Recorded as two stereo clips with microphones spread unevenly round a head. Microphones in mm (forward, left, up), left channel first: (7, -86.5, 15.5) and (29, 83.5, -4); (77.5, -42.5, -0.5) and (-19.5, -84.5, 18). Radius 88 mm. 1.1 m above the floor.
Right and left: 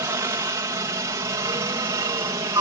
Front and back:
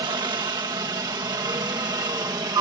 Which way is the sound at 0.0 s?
150° left.